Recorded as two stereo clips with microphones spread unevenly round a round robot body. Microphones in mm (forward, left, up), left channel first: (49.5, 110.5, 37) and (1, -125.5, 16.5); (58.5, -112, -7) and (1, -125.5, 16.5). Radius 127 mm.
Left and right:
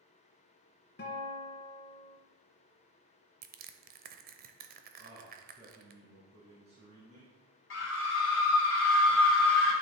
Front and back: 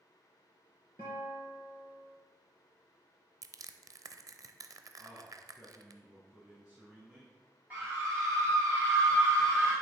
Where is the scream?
100° left, 2 m.